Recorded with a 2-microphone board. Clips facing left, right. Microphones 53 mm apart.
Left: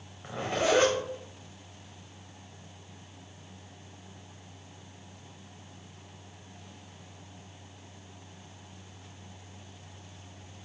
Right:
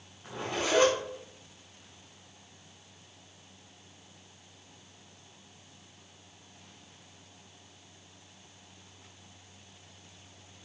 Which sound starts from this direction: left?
A zipper, at 0.2 s.